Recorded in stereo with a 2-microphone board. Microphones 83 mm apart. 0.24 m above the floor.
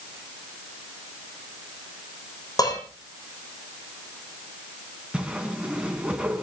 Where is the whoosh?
15° right (ahead or behind), 3 m.